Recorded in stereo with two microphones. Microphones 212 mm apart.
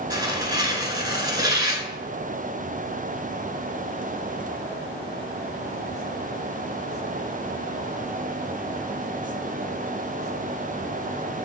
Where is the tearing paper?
20° right (ahead or behind), 0.6 m.